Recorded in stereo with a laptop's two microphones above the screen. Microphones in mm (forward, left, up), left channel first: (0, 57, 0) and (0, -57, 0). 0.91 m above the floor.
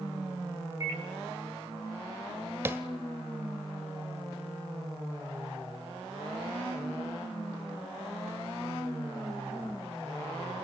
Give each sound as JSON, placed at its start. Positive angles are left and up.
{"t": 0.8, "sound": "a microwave", "side_deg": -30, "distance_m": 5.5}
{"t": 2.6, "sound": "tapping", "side_deg": -20, "distance_m": 1.3}